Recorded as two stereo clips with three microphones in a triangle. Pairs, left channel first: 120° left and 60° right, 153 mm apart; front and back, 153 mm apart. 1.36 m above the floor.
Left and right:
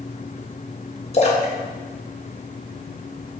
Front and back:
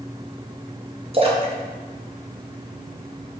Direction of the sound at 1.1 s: 145° left.